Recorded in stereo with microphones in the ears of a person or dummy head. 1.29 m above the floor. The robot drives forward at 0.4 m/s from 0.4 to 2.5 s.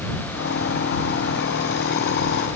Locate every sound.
Only background noise.